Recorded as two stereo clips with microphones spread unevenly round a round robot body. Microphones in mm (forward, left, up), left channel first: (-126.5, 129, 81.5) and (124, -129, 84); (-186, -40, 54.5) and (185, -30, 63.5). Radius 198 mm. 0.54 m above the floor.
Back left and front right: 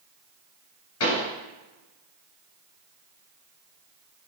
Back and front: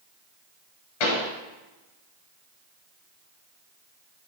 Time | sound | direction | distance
1.0 | a pop | 175° right | 2 m